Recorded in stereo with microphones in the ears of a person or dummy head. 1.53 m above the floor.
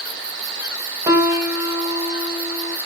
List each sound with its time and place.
1.1 s a piano: 20° right (ahead or behind), 1.5 m